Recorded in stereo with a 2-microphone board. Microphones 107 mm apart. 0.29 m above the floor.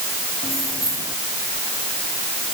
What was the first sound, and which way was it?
Keys jangling, 25° right (ahead or behind).